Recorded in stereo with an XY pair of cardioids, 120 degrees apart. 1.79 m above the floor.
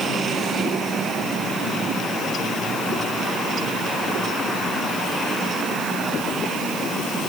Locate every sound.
Only background noise.